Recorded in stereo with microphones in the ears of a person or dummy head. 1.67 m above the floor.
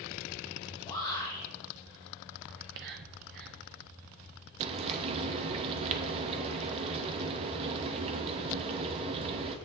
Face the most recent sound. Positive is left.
turn(degrees=-35)  # may be behind; listen again after turning